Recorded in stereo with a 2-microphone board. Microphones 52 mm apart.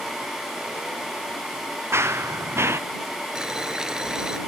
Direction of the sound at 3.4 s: 15° right (ahead or behind).